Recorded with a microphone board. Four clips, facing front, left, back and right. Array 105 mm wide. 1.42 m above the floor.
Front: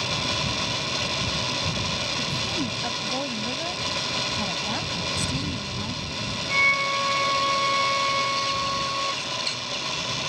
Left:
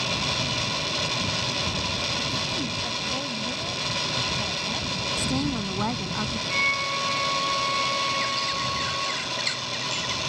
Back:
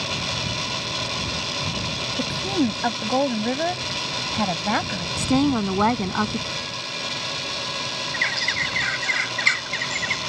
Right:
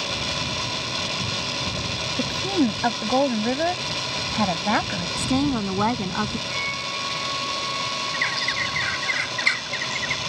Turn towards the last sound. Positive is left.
turn(degrees=-150)